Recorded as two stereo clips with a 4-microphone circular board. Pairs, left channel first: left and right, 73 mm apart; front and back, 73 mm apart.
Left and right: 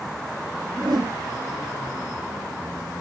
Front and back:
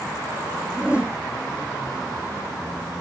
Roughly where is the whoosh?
Right.